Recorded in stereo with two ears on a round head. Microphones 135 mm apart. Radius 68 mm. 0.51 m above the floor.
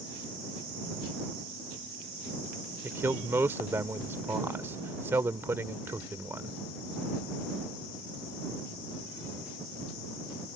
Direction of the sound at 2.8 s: 15° right (ahead or behind).